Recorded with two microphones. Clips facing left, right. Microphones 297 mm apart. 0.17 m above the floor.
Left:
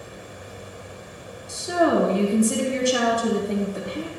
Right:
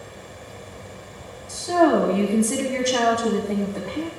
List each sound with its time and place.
1.5 s a woman speaking: 15° left (ahead or behind), 1.1 m